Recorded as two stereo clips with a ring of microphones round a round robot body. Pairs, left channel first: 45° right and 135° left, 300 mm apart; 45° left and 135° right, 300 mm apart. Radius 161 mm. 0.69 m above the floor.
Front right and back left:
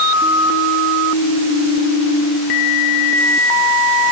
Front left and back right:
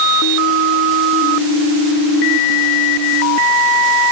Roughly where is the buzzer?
No buzzer in this recording.